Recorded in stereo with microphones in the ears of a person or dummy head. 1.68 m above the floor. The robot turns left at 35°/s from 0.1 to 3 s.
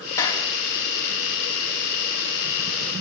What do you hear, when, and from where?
0.2 s a clap: 20° left (ahead or behind), 3.5 m; by 0.5 s 30° left (ahead or behind), 3.5 m